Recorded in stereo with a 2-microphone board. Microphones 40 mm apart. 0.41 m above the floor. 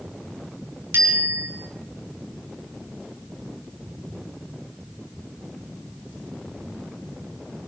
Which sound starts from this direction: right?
A bicycle bell, at 0.9 s.